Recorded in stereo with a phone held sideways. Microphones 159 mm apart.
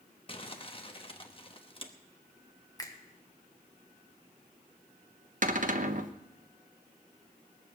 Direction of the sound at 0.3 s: 35° left (ahead or behind).